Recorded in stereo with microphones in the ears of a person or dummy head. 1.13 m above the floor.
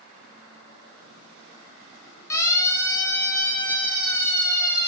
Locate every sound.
2.3 s a siren: 20° left (ahead or behind), 5.5 m; by 4.9 s 15° left (ahead or behind), 8 m